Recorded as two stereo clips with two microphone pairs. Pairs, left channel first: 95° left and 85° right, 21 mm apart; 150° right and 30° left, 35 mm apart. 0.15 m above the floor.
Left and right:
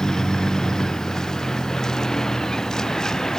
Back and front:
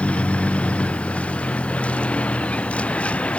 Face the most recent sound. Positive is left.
turn(degrees=155)